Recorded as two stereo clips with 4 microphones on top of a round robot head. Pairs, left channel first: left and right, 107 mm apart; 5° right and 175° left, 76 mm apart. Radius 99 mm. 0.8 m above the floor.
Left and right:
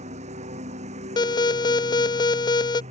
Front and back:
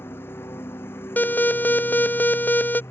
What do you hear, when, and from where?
0.0 s a lawn mower: 75° right; by 2.9 s 70° right
1.2 s an alarm: 55° left